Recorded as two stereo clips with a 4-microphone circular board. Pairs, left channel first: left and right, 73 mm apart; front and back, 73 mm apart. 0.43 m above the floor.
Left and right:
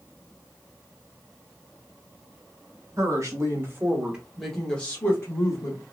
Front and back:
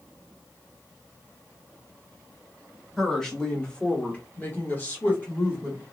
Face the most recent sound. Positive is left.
turn(degrees=60)